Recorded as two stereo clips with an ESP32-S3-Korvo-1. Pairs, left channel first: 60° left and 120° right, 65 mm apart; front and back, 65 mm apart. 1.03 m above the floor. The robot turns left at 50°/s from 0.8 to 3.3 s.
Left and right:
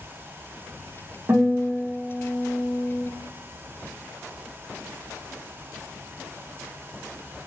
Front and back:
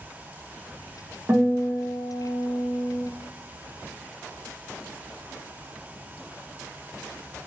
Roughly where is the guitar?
Behind right.